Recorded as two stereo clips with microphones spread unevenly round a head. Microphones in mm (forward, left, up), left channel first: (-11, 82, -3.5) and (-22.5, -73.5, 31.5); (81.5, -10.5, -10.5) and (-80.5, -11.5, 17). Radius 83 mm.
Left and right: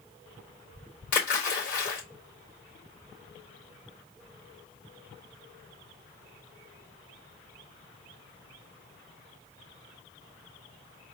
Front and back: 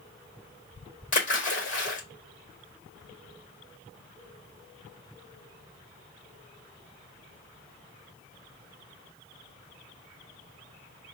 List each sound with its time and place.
1.1 s a splash: 45° left, 3.5 m